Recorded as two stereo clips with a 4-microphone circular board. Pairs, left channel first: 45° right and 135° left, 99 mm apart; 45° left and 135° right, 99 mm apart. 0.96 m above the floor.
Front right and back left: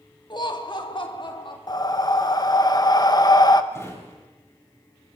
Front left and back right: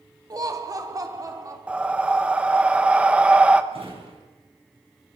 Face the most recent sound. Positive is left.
turn(degrees=-110)